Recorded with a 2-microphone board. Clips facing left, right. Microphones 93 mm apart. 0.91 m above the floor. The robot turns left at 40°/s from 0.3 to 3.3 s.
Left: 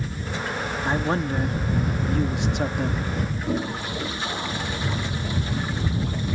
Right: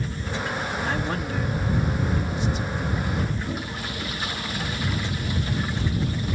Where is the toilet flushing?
25° left (ahead or behind).